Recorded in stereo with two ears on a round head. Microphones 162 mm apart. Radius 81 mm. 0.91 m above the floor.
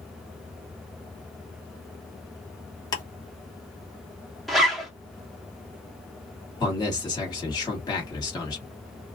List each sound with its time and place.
2.9 s ticking: 20° left (ahead or behind), 1.4 m
4.5 s a zipper: centre (ahead or behind), 1.0 m
6.6 s a man speaking: 25° left (ahead or behind), 1.9 m